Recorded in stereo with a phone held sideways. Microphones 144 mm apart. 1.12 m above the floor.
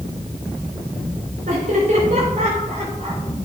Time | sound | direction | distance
1.5 | laughter | 65° right (ahead or behind) | 5 m